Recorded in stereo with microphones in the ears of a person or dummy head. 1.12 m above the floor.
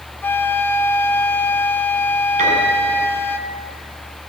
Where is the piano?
45° right (ahead or behind), 8 m.